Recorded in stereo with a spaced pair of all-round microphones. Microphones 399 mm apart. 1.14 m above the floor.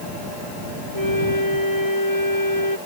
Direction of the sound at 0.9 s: 55° left (ahead or behind).